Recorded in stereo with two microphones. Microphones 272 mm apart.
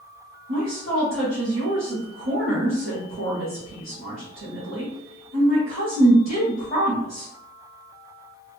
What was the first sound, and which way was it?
A woman speaking, 50° right (ahead or behind).